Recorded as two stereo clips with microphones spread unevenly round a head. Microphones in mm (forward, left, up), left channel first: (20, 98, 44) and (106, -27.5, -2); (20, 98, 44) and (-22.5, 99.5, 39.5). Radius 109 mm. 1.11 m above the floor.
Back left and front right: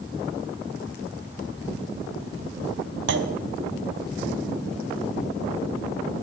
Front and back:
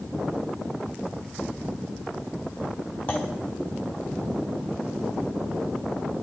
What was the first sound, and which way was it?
A clunk, 70° right.